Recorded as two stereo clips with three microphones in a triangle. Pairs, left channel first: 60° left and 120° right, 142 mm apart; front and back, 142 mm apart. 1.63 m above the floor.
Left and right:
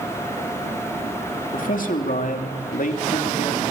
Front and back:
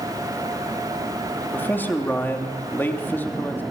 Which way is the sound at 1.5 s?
75° left.